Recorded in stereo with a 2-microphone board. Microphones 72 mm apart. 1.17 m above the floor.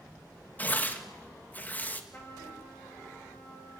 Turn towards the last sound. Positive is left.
turn(degrees=25)  # may be behind; listen again after turning